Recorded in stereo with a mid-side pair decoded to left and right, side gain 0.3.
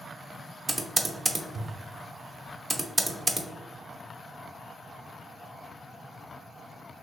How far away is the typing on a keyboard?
About 0.9 m.